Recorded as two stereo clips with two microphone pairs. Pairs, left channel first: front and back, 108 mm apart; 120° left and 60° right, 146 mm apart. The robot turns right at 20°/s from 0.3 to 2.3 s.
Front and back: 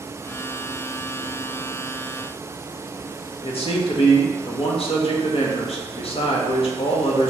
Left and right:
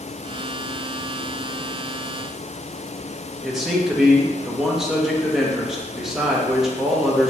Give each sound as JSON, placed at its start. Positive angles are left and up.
{"t": 3.4, "sound": "a man speaking", "azimuth_deg": 30, "distance_m": 1.0}